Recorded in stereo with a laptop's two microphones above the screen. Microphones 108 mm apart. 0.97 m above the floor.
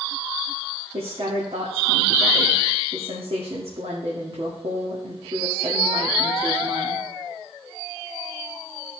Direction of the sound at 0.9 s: 60° right (ahead or behind).